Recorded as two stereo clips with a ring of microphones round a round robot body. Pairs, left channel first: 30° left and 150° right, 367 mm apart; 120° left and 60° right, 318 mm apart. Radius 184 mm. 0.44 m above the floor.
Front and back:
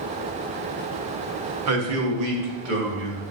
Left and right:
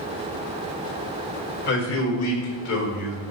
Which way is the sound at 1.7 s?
175° left.